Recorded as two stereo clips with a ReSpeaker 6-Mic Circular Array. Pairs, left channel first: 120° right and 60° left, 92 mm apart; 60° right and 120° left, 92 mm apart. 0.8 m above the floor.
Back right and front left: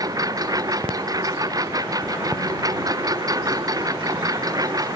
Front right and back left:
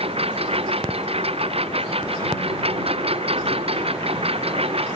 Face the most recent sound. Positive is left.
turn(degrees=110)